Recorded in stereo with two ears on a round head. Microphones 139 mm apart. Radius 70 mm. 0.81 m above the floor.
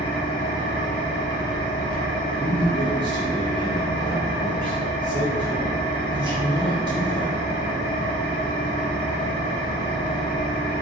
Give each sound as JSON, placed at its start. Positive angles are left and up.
{"t": 0.0, "sound": "an engine running", "side_deg": 50, "distance_m": 1.0}
{"t": 2.4, "sound": "a man speaking", "side_deg": -30, "distance_m": 0.9}